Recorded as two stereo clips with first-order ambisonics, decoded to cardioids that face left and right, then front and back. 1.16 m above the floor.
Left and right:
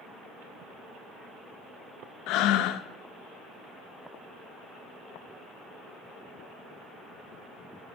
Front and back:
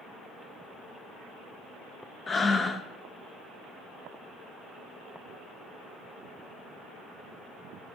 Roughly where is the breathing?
Left.